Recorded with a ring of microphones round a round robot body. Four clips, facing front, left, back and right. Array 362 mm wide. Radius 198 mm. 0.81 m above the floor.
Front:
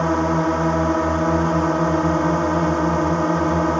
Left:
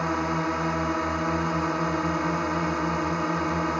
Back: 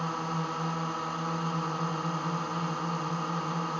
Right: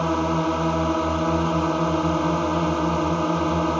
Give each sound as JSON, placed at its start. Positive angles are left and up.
{"t": 0.0, "sound": "a drone", "azimuth_deg": -20}